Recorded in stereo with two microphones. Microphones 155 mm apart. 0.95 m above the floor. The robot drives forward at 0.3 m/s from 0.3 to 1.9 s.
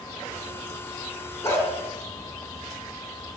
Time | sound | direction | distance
1.4 | a dog barking | 15° left (ahead or behind) | 2.5 m